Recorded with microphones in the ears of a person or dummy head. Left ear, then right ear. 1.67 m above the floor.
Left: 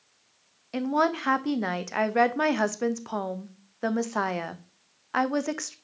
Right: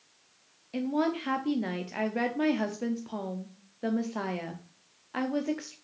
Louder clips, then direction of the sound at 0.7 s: Left 5 dB; 40° left (ahead or behind).